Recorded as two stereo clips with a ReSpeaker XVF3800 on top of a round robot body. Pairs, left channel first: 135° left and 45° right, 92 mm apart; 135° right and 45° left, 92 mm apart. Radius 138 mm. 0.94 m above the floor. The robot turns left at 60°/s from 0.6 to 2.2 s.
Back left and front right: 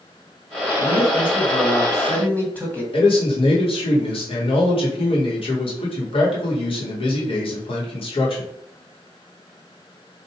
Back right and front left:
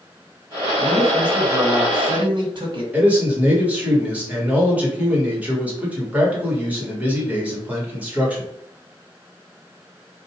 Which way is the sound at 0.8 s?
145° left.